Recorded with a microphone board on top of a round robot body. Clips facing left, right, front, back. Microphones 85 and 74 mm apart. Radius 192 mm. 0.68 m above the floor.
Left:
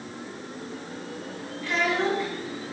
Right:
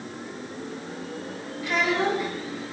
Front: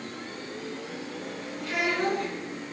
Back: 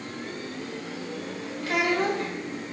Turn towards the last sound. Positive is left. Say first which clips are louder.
# right 1 dB, back 3 dB
turn(degrees=-165)